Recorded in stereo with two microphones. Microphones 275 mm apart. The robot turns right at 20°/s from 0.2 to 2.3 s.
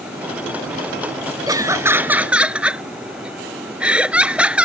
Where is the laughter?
15° right (ahead or behind); by 4.7 s 5° right (ahead or behind).